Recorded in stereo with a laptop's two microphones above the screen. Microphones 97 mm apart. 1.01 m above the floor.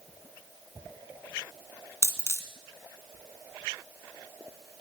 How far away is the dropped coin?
About 1.3 m.